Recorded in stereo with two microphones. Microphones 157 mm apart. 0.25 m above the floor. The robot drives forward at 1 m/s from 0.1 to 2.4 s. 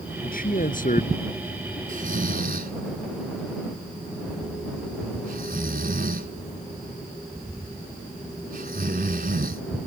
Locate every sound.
0.2 s a man speaking: 65° left (ahead or behind); by 1.8 s 50° left (ahead or behind)
1.9 s snoring: 55° right (ahead or behind); by 9.6 s 70° right (ahead or behind)